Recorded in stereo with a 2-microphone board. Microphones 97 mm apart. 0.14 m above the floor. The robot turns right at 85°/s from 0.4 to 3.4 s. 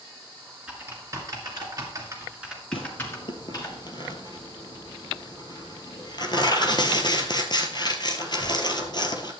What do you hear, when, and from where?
0.7 s typing on a keyboard: 10° right (ahead or behind), 2 m; by 3.7 s 40° left (ahead or behind), 2 m
2.7 s tearing paper: 65° left (ahead or behind), 1.1 m; by 9.3 s 45° left (ahead or behind), 1.1 m